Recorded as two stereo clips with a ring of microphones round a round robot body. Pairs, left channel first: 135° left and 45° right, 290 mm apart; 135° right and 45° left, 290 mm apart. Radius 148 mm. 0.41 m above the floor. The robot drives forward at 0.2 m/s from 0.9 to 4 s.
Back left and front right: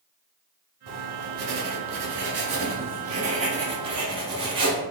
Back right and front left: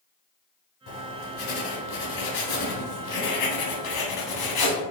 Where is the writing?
85° right, 0.9 m; by 4.8 s 120° right, 1.0 m.